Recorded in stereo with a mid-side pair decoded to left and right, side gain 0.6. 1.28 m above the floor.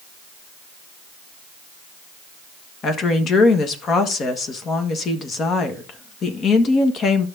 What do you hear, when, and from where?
2.8 s a woman speaking: 45° left, 1.4 m